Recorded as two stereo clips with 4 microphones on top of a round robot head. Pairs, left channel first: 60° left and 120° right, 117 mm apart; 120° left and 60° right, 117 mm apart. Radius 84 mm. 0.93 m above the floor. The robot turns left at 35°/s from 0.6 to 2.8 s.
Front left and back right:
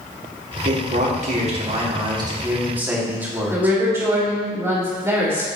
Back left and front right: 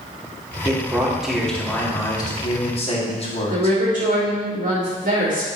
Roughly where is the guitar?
No guitar in this recording.